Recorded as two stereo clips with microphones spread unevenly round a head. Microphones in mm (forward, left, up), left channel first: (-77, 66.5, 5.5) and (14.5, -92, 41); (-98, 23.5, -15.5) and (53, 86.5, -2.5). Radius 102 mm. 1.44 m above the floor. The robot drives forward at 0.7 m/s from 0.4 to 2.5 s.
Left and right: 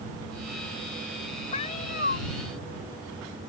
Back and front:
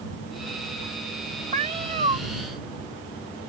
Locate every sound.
1.5 s a cat meowing: 55° left; by 2.2 s 70° left